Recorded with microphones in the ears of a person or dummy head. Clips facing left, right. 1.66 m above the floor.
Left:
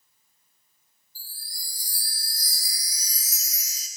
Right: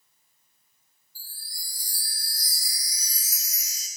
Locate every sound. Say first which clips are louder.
1.1 s a chime: left 1 dB; 65° left (ahead or behind), 3.5 m